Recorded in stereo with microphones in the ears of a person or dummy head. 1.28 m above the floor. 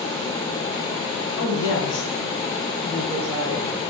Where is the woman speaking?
70° left (ahead or behind), 0.9 m; by 3.9 s 30° right (ahead or behind), 0.9 m.